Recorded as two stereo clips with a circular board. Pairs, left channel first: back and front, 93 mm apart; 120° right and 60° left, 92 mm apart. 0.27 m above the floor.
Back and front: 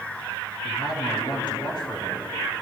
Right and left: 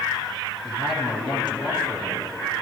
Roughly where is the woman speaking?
Behind right.